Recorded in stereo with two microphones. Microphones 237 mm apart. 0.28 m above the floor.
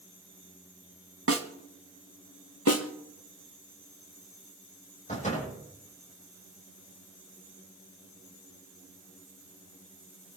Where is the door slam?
30° left (ahead or behind), 9 m.